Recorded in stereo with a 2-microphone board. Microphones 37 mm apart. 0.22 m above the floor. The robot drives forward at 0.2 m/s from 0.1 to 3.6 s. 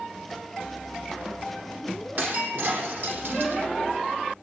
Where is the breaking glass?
55° right (ahead or behind), 6.5 m; by 3.6 s 60° right (ahead or behind), 6.5 m.